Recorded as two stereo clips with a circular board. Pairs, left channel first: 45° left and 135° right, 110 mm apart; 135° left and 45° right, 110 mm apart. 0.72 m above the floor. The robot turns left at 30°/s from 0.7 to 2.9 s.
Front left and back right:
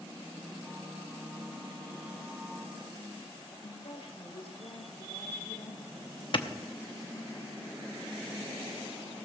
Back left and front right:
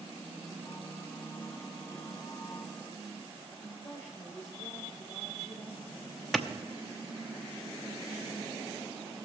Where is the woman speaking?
70° left, 1.7 m.